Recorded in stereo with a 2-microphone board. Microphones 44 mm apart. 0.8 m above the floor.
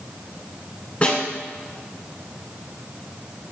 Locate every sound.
1.0 s a snare drum: 25° left (ahead or behind), 2 m